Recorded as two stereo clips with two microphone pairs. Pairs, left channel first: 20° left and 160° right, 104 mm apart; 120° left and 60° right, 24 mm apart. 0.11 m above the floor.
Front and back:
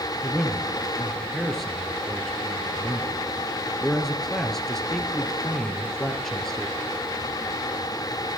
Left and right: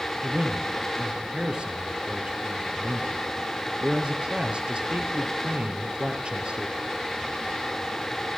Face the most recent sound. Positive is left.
turn(degrees=-65)